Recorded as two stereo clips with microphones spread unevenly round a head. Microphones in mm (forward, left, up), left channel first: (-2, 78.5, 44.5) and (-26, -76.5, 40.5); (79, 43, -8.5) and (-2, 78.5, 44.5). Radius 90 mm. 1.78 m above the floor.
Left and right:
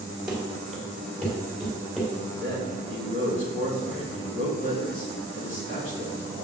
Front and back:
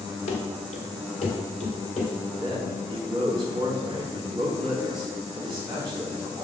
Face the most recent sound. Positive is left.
turn(degrees=120)